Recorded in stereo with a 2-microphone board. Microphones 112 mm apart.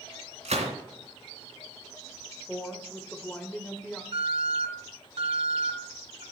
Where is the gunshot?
80° right, 2.5 m.